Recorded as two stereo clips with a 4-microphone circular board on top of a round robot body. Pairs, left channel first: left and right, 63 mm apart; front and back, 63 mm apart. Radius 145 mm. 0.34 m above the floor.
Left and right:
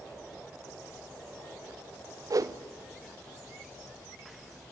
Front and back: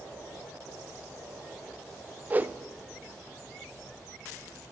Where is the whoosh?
115° right, 0.9 m.